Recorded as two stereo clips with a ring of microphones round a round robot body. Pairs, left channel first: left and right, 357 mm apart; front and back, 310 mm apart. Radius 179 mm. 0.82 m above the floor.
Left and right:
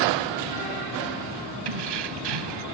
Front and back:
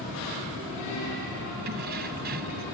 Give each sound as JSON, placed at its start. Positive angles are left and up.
{"t": 1.6, "sound": "keys jangling", "azimuth_deg": -115}